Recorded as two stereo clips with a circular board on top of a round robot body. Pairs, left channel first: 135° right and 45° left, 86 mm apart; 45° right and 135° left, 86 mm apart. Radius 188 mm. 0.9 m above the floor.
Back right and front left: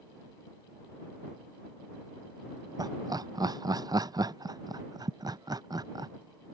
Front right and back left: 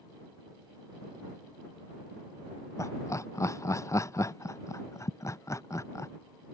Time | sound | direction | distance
2.8 | laughter | 5° left | ?